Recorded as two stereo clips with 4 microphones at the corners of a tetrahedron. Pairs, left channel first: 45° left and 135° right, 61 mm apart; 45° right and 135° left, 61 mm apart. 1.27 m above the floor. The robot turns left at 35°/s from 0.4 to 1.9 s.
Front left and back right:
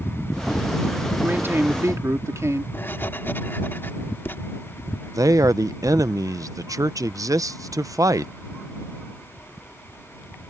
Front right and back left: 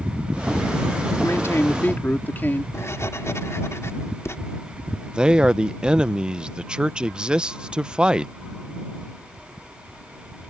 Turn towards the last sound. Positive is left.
turn(degrees=-150)